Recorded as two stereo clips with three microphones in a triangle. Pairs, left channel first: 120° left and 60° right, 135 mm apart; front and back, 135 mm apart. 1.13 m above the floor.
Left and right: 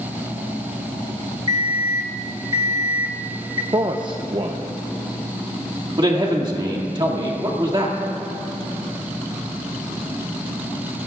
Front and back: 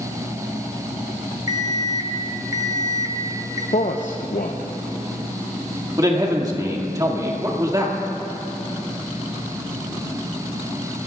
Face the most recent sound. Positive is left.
turn(degrees=-115)